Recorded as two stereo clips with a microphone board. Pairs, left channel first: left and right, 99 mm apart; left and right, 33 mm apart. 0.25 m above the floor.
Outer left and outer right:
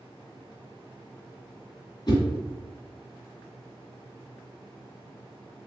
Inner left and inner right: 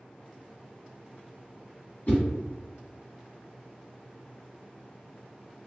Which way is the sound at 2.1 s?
45° left (ahead or behind).